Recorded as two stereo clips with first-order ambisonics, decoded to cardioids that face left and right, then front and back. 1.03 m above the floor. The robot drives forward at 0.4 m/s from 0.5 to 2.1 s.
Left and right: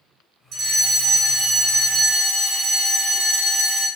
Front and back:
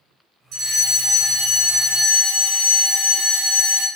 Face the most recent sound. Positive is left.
turn(degrees=-145)